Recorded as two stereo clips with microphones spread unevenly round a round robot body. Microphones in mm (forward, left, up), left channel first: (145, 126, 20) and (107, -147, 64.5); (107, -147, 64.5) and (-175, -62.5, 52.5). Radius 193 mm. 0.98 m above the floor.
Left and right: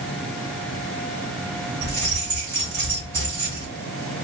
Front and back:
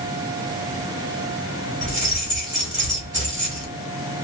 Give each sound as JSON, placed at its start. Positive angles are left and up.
{"t": 1.8, "sound": "keys jangling", "azimuth_deg": -145, "distance_m": 2.0}